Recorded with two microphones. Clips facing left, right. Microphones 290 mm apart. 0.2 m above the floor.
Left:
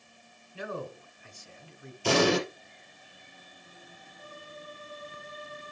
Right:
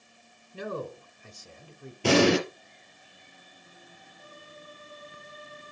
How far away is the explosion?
About 4.5 m.